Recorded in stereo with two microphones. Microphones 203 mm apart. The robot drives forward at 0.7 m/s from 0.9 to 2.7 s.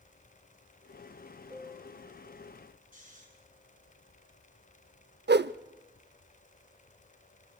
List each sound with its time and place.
1.5 s a piano: 10° right (ahead or behind), 4.5 m; by 2.0 s 15° right (ahead or behind), 4 m
2.9 s snoring: 45° right (ahead or behind), 8.5 m
5.3 s a whoosh: 65° right (ahead or behind), 0.5 m